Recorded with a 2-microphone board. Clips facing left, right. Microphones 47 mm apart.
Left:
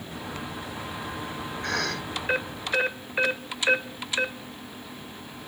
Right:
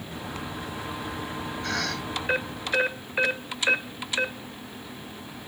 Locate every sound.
1.6 s a cough: 50° left (ahead or behind), 6 m